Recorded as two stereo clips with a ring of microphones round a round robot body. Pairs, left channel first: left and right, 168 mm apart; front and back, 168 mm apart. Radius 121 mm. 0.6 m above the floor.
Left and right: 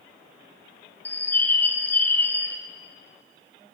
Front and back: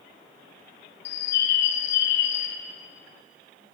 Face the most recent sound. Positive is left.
turn(degrees=10)